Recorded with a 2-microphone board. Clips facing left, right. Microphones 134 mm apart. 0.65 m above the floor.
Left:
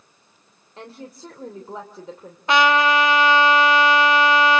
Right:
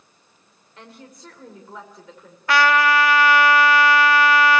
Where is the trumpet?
20° left (ahead or behind), 1.4 m.